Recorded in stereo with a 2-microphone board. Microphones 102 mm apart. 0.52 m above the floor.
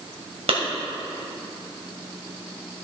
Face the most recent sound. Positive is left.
turn(degrees=-75)  # may be behind; listen again after turning